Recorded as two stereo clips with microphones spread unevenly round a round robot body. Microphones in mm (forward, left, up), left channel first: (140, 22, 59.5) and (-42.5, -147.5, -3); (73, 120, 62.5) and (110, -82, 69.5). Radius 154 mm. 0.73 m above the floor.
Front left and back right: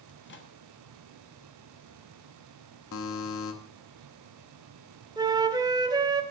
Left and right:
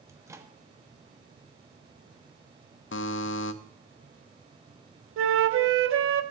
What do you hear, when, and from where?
0.1 s a microwave: 5° right, 1.4 m
2.9 s a buzzer: 90° left, 0.6 m
5.2 s a flute: 65° right, 1.0 m